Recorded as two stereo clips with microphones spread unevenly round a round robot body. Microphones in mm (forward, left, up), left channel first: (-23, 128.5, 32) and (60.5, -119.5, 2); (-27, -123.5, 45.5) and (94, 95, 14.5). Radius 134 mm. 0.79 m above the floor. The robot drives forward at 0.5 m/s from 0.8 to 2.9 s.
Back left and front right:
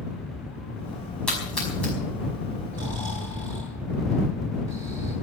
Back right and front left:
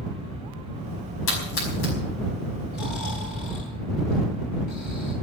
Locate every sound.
1.3 s a splash: 165° right, 5 m
2.7 s snoring: 145° right, 8 m